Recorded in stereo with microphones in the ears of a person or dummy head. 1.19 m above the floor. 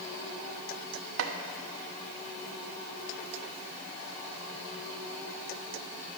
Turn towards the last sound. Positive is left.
turn(degrees=-75)  # may be behind; listen again after turning